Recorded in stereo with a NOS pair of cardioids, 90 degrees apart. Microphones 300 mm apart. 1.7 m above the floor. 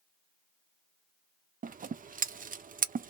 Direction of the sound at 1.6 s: 30° right.